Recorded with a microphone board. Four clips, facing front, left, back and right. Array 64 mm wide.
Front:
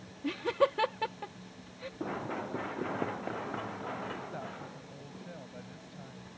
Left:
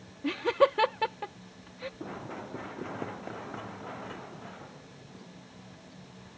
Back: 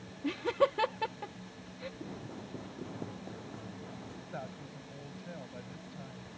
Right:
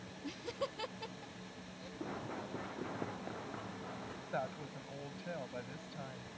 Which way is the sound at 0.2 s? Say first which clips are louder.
Left 17 dB, even; 90° left.